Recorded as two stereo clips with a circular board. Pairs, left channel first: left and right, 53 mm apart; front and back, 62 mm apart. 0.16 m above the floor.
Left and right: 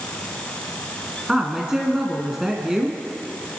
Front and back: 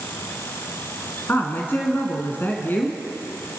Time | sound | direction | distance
1.3 | a woman speaking | 20° right | 1.5 m